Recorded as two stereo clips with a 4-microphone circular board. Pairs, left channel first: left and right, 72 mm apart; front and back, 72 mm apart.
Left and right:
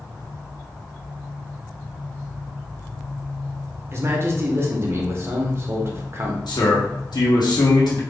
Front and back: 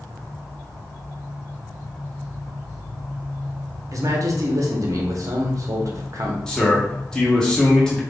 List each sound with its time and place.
3.9 s a man speaking: 140° right, 0.6 m
6.5 s a man speaking: 80° left, 0.9 m